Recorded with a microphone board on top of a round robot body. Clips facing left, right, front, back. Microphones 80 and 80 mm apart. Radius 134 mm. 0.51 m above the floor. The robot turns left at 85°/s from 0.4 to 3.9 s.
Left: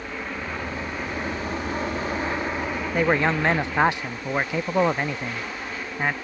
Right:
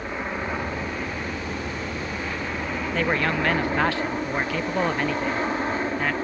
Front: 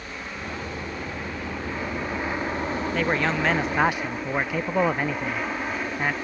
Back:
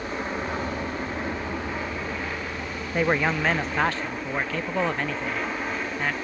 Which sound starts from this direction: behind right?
An aircraft, at 0.0 s.